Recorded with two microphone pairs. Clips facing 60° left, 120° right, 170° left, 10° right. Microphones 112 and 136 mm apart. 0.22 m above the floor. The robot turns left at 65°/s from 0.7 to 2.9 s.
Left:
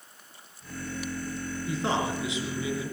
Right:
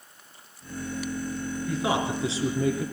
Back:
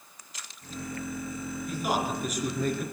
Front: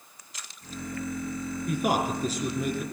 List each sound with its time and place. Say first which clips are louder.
1.7 s a man speaking: right 2 dB, front 3 dB; 25° right, 3.5 m; by 2.9 s 105° right, 3.5 m